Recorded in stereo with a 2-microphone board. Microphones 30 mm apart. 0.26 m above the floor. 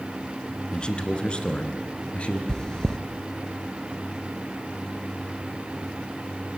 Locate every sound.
0.7 s a man speaking: 30° left (ahead or behind), 3 m; by 2.4 s 40° left (ahead or behind), 4 m
2.5 s chewing: 20° left (ahead or behind), 1.7 m